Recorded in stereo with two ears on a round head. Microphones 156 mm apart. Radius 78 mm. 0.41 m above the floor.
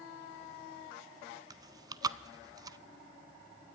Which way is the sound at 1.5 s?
25° right (ahead or behind).